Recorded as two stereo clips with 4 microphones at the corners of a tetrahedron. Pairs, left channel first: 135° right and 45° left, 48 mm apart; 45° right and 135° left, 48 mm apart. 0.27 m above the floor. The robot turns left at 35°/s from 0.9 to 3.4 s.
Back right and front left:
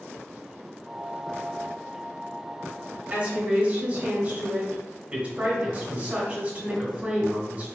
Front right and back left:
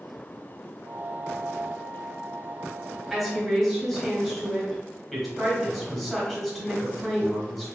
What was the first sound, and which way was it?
A woman speaking, 55° left.